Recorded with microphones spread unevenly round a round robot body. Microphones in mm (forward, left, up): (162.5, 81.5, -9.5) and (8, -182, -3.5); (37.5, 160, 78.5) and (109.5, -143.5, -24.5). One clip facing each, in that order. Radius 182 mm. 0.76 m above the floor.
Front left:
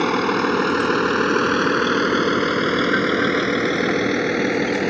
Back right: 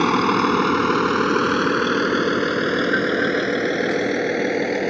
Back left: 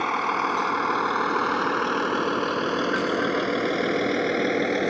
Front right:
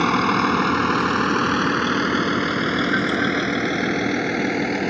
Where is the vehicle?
50° right; by 4.9 s 10° right.